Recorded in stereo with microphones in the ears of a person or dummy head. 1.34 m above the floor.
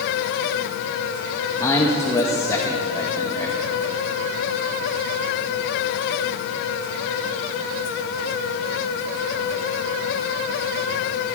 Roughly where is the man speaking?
Centre.